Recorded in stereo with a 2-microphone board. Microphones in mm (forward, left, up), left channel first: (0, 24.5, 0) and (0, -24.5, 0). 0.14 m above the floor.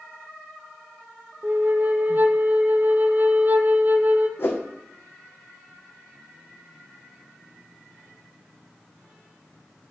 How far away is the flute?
About 0.8 m.